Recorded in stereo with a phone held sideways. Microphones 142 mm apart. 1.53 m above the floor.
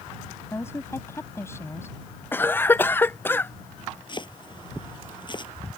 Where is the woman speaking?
15° left (ahead or behind).